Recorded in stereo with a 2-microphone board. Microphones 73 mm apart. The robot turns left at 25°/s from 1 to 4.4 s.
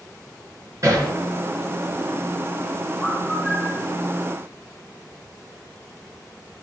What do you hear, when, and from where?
0.8 s hammering: 50° right (ahead or behind), 5 m
3.0 s a bird: 5° left (ahead or behind), 1.9 m; by 3.8 s 25° left (ahead or behind), 1.9 m